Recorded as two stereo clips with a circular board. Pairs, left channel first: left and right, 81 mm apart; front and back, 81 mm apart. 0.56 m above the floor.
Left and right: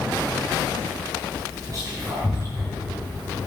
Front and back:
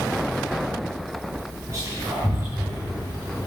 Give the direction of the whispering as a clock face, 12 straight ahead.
4 o'clock.